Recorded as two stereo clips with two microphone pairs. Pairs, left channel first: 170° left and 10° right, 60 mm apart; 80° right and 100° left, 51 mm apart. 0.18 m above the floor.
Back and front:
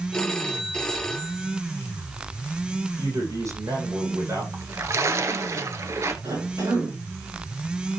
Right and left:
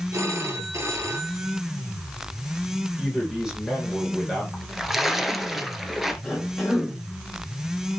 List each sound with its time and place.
0.1 s a phone ringing: 95° left, 2 m
3.0 s a man speaking: 15° left, 8.5 m
4.5 s a splash: 15° left, 1.5 m
6.2 s a cough: 10° left, 9.5 m